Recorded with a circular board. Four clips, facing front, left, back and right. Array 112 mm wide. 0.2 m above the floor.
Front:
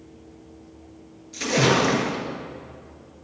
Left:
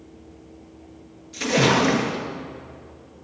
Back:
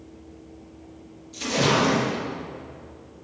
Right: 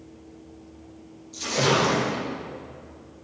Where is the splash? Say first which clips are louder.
Left 4 dB, front 2 dB; 55° left, 3 m.